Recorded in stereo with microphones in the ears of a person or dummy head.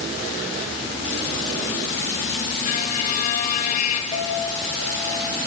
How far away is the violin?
About 3.5 m.